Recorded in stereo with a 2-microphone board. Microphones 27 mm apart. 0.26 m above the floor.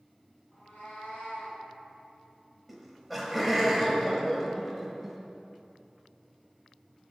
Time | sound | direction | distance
0.5 | a cat meowing | 75° left (ahead or behind) | 2.5 m
2.7 | laughter | centre (ahead or behind) | 0.9 m